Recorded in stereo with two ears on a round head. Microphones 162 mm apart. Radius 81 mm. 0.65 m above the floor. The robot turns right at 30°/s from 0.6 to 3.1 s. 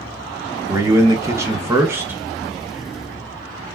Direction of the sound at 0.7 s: 20° right (ahead or behind).